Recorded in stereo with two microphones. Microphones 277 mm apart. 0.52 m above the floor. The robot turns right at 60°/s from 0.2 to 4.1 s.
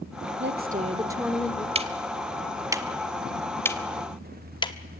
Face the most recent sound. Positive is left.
turn(degrees=15)  # may be behind; listen again after turning